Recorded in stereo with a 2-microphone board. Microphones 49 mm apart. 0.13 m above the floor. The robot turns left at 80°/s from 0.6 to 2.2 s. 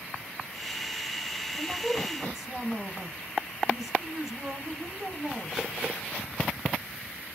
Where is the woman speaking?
125° right, 3 m; by 5.7 s 175° right, 3 m.